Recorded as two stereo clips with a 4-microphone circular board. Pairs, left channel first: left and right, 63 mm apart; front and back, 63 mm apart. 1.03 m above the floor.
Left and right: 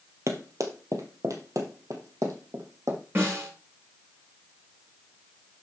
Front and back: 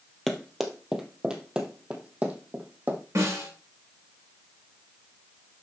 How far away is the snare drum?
About 5 m.